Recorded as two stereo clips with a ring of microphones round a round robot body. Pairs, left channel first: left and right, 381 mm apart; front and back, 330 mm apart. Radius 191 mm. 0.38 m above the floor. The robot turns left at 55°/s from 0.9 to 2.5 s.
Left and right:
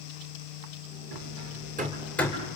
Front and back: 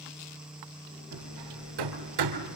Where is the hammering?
125° right, 3 m; by 2.6 s 160° left, 3 m.